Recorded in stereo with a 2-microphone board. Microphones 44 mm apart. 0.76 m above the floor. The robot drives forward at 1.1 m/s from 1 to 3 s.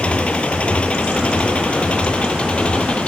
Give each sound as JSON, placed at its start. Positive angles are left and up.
{"t": 0.0, "sound": "an engine running", "side_deg": 25}